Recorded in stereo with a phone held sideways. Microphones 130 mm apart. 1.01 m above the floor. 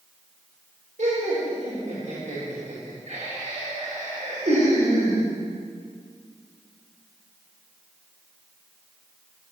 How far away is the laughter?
About 4.5 m.